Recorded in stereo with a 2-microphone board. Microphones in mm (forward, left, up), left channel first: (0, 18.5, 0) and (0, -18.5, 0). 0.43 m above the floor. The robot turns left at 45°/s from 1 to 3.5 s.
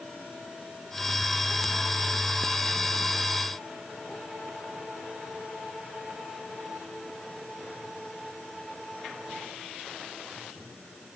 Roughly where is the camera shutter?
No camera shutter in this recording.